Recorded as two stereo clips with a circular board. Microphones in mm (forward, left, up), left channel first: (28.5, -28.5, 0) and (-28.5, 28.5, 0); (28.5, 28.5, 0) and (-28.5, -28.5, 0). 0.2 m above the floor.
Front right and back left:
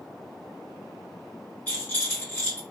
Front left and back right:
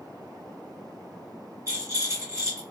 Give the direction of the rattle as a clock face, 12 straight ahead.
4 o'clock.